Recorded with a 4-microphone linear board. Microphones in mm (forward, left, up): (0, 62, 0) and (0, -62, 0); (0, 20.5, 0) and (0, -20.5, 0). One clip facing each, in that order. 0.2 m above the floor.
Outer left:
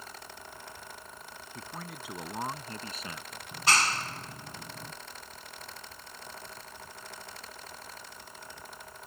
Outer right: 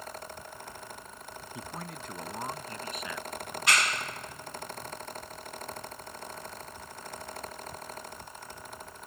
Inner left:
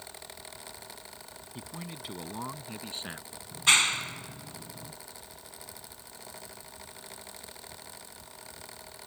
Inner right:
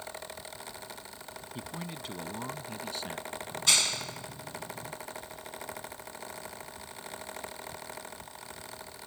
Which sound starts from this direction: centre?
A man speaking, at 1.6 s.